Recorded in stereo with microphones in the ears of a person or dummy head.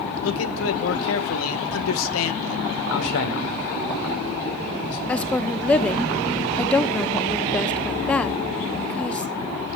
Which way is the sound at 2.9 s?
80° left.